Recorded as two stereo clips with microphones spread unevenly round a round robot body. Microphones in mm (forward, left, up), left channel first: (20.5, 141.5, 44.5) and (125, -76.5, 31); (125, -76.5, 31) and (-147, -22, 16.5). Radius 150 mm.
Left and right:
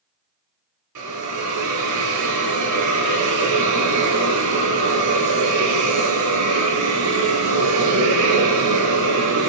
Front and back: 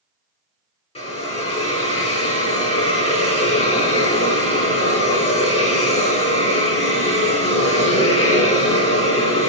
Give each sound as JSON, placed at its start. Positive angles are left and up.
{"t": 0.9, "sound": "a hiss", "azimuth_deg": -80, "distance_m": 2.5}